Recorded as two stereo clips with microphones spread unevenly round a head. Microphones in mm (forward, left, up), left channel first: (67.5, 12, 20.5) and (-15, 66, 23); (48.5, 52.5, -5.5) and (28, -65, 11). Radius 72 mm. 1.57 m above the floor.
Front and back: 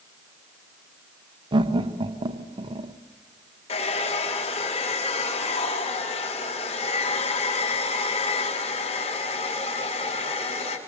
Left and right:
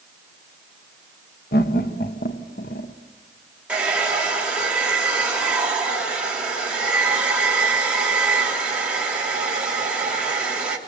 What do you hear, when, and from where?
1.5 s laughter: 105° left, 1.1 m
3.7 s a hair dryer: 20° right, 4 m